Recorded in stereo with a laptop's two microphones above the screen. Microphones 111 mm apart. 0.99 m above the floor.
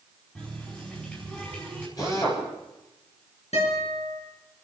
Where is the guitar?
80° left, 7 m.